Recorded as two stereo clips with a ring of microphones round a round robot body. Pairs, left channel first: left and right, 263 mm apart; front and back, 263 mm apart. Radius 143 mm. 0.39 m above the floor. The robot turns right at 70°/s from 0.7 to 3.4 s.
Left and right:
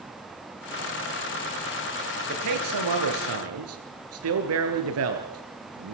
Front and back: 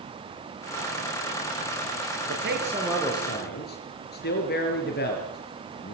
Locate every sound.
2.3 s a man speaking: 135° right, 5.5 m; by 5.9 s 60° right, 5.5 m